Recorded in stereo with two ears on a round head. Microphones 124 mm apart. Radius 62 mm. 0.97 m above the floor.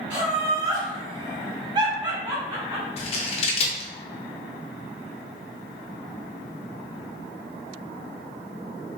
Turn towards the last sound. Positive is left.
turn(degrees=45)  # may be behind; listen again after turning